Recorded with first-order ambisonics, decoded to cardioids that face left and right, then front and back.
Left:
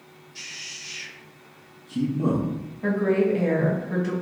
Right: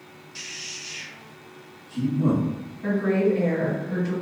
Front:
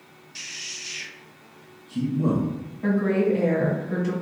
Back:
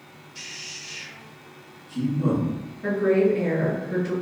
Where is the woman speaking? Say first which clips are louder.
Left 1 dB, back 3 dB; 50° left, 1.6 m.